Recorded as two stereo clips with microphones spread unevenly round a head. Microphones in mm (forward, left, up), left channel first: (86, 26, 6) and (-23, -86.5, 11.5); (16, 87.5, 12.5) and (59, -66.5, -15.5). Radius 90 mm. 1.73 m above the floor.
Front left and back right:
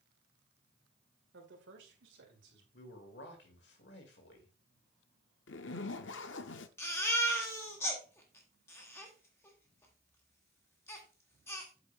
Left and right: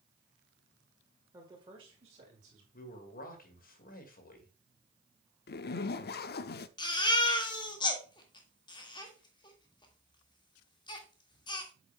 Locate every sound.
1.3 s a man speaking: 150° right, 1.7 m; by 2.6 s 130° right, 3.5 m
2.7 s a man speaking: 80° left, 2 m
5.5 s a zipper: 80° left, 0.5 m
6.8 s a baby crying: 115° left, 1.5 m